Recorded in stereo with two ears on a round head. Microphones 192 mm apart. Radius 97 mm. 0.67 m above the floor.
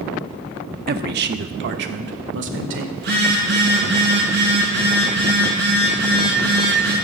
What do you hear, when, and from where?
0.9 s a man speaking: 45° right (ahead or behind), 0.9 m; by 2.9 s 60° right (ahead or behind), 2 m
3.0 s a phone buzzing: 55° right (ahead or behind), 7.5 m